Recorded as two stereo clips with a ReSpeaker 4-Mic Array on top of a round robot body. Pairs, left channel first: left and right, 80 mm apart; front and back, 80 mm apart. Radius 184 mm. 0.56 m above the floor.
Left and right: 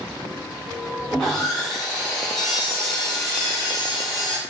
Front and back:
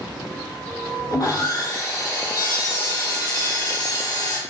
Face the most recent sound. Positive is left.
turn(degrees=-5)